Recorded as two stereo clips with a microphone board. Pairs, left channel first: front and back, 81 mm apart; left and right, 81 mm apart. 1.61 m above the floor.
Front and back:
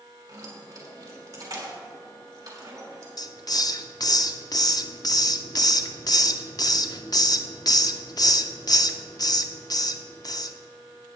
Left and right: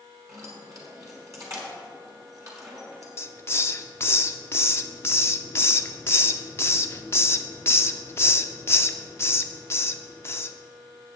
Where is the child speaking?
I don't hear a child speaking.